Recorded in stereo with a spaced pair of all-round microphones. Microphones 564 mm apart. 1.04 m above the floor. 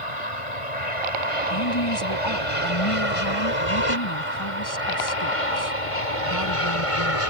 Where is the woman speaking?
45° left (ahead or behind).